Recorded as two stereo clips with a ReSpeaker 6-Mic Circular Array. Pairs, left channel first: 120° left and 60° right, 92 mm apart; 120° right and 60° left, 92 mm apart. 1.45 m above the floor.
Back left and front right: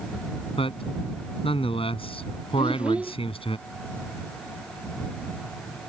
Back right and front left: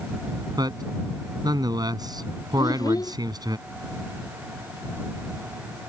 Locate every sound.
0.6 s a man speaking: 105° left
2.6 s a child speaking: 130° right